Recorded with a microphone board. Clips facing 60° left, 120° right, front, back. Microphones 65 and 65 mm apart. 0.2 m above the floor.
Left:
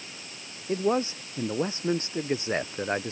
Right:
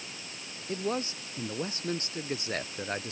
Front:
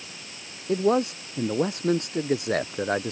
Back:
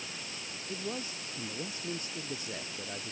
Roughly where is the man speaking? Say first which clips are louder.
Left 7 dB, front 17 dB; ahead.